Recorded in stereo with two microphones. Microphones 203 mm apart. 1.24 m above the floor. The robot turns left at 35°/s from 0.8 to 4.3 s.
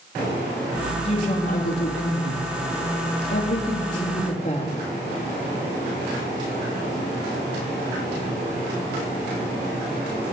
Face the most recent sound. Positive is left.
turn(degrees=35)